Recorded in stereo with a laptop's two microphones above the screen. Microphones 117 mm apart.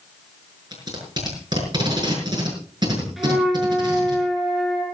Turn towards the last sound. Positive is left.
turn(degrees=0)  # may be behind; listen again after turning